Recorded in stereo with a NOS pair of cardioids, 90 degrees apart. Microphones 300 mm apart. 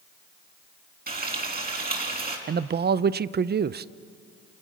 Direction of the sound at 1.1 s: 30° right.